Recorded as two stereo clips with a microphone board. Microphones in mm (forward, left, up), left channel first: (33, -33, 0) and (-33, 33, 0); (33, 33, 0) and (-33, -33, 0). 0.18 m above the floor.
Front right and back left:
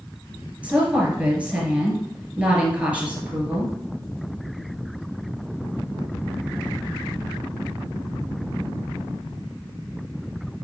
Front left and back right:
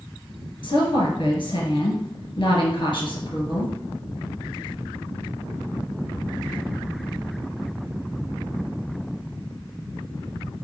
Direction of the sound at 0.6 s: 60° left.